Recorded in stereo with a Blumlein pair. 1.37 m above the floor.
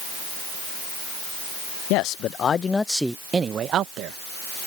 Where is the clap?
I don't hear a clap.